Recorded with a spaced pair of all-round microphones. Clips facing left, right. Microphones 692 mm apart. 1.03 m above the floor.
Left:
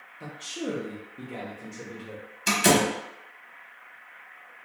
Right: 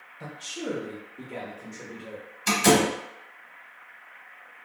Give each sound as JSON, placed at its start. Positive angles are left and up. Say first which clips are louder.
{"t": 0.2, "sound": "a man speaking", "louder": "left 2 dB", "side_deg": -25, "distance_m": 0.7}
{"t": 2.5, "sound": "a door slam", "louder": "right 2 dB", "side_deg": 15, "distance_m": 0.7}